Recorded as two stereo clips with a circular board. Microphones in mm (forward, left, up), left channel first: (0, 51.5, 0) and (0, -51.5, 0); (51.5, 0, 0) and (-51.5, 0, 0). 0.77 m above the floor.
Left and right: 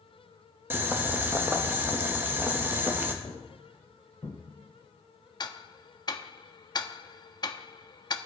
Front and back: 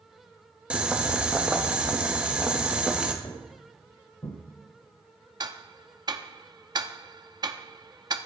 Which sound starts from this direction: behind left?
Ticking, at 5.4 s.